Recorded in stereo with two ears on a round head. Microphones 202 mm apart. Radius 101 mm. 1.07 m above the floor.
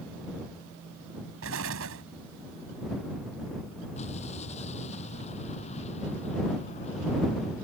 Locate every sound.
1.4 s an explosion: 65° right (ahead or behind)
4.0 s an explosion: 30° left (ahead or behind)